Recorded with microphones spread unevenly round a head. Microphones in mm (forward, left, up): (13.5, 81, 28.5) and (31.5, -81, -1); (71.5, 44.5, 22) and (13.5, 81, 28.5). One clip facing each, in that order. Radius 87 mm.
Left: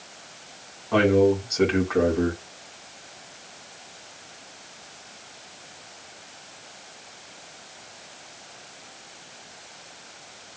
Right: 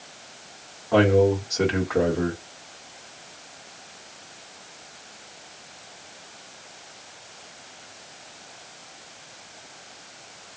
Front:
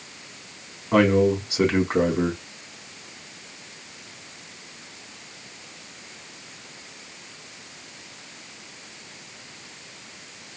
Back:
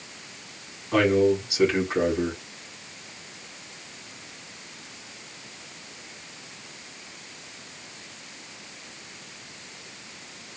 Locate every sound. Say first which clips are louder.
0.9 s a man speaking: even, front 2 dB; 5° left, 2.5 m